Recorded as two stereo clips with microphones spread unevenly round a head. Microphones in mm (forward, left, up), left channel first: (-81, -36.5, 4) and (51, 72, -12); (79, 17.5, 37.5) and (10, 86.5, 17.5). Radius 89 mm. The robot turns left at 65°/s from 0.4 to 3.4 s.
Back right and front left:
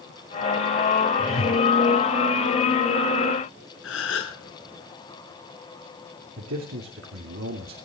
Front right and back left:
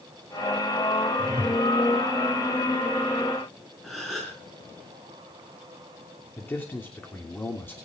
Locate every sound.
1.2 s a whoosh: 110° right, 2.5 m; by 1.6 s 140° right, 2.5 m
3.8 s a gasp: 135° right, 5 m
6.4 s a man speaking: 25° left, 3 m